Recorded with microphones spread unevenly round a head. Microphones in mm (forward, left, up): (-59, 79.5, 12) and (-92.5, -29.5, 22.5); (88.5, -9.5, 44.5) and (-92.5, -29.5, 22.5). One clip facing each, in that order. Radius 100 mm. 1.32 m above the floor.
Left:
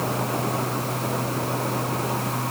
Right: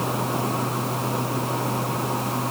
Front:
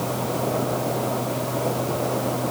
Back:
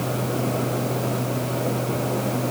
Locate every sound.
Only background noise.